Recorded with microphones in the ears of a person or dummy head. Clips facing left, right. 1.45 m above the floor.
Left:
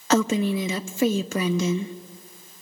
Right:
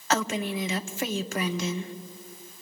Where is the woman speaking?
70° left (ahead or behind), 0.8 m.